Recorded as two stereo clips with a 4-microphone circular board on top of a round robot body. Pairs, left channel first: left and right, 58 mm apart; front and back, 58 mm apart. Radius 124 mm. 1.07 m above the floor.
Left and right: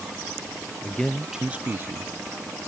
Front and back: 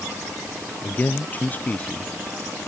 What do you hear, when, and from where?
0.8 s a man speaking: 40° left; by 2.1 s 65° right